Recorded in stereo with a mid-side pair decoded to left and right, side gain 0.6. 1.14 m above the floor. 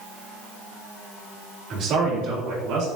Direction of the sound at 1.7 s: 55° right.